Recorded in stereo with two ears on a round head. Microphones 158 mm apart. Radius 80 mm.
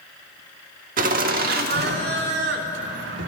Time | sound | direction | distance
1.0 | laughter | 45° right (ahead or behind) | 1.5 m